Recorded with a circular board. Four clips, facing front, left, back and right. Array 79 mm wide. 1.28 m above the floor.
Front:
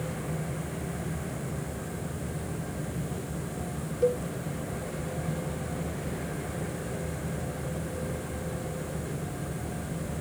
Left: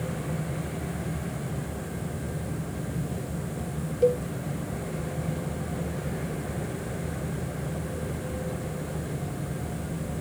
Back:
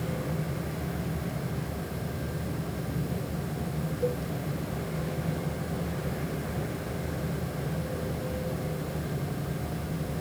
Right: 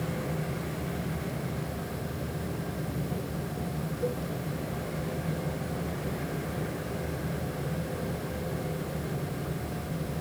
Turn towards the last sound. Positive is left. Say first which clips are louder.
# left 11 dB, front 5 dB
turn(degrees=70)